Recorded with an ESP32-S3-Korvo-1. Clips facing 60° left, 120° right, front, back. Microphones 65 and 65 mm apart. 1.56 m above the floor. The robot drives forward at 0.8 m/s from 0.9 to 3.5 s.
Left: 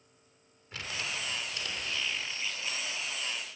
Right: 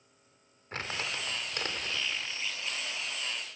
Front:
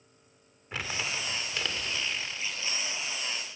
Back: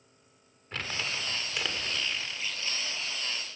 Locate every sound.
0.7 s crumpling: 80° right, 2 m; by 2.2 s 110° right, 2 m